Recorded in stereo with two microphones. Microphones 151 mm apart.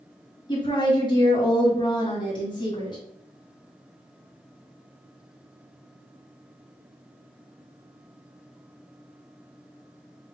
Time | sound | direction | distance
0.5 | a woman speaking | 30° left (ahead or behind) | 1.7 m